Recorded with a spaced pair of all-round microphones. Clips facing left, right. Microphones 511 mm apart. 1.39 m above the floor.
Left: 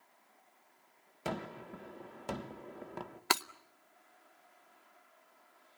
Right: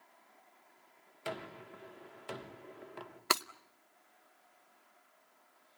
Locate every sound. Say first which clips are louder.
1.2 s a gunshot: left 4 dB; 65° left (ahead or behind), 1.2 m
3.3 s breaking glass: even; 10° left (ahead or behind), 0.6 m